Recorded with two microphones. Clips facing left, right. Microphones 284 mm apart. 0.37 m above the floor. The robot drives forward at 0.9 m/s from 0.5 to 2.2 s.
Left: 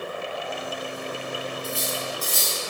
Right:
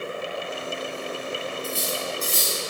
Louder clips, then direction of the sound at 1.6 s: Right 1 dB; 35° right (ahead or behind).